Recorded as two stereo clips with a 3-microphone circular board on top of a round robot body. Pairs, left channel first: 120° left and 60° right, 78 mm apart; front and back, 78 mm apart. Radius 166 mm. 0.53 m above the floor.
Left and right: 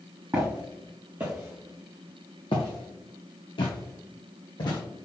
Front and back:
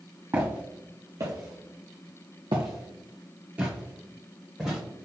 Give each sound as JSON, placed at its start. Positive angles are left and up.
{"t": 0.3, "sound": "footsteps", "azimuth_deg": -120, "distance_m": 1.4}